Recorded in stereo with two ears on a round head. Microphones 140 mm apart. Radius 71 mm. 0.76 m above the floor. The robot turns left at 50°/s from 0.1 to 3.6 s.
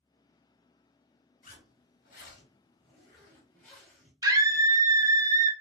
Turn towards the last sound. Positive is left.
turn(degrees=-20)  # may be behind; listen again after turning